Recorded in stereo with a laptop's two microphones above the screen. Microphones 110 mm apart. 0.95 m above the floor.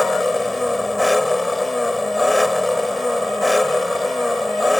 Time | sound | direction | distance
0.0 | an engine running | centre (ahead or behind) | ?